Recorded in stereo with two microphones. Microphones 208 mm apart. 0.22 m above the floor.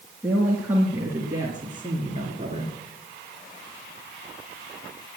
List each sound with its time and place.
0.2 s a woman speaking: 5° right (ahead or behind), 2.5 m; by 2.8 s 30° right (ahead or behind), 2.5 m